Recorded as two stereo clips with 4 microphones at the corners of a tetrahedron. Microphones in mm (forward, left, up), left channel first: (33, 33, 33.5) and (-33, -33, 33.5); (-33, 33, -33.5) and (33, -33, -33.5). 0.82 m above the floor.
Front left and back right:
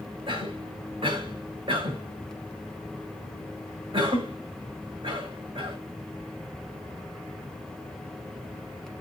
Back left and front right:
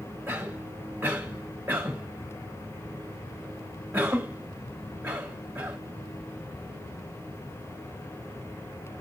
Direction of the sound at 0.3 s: 120° right.